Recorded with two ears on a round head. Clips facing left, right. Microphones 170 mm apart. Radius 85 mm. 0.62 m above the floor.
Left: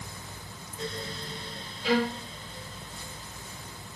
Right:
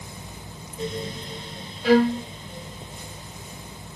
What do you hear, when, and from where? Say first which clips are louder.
1.8 s a violin: right 9 dB; 45° right (ahead or behind), 0.6 m